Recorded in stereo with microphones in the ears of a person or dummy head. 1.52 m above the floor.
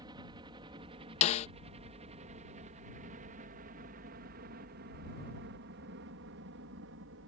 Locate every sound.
0.0 s a helicopter: 25° right (ahead or behind); by 7.3 s 65° right (ahead or behind)
1.2 s a snare drum: 35° left (ahead or behind)